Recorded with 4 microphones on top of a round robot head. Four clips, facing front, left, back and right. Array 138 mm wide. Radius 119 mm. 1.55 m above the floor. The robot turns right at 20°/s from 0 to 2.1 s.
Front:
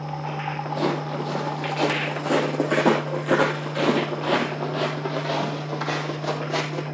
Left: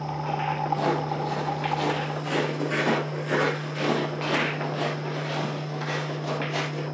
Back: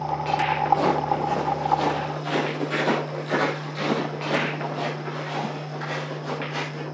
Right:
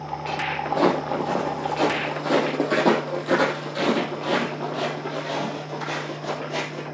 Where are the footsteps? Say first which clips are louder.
Right 8 dB, back 3 dB; 90° right, 3.5 m; by 6.8 s straight ahead, 4.5 m.